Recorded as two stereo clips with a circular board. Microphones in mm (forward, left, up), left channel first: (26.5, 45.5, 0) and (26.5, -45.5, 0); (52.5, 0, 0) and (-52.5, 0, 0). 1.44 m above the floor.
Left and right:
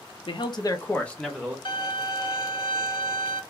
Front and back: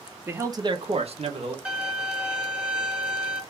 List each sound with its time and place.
0.3 s a man speaking: 110° left, 0.9 m; by 1.6 s 170° right, 1.1 m
1.6 s a violin: 100° left, 1.2 m